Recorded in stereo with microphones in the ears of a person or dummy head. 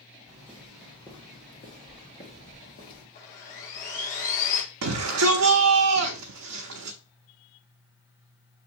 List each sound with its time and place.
0.3 s footsteps: 5° right (ahead or behind), 1.7 m; by 3.0 s 40° left (ahead or behind), 2 m
3.1 s sawing: 50° left (ahead or behind), 1.1 m
4.8 s a shout: 75° right (ahead or behind), 0.6 m